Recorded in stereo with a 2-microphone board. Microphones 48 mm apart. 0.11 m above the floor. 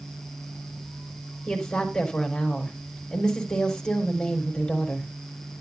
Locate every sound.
1.5 s a woman speaking: 10° left (ahead or behind), 4 m